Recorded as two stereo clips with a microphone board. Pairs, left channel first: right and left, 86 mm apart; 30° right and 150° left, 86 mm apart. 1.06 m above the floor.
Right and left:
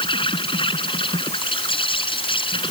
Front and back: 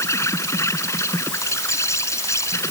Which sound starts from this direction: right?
An insect, at 0.0 s.